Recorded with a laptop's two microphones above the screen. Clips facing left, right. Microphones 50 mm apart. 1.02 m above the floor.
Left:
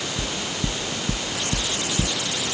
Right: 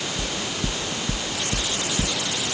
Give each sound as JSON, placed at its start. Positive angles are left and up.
{"t": 0.2, "sound": "knocking", "side_deg": 15}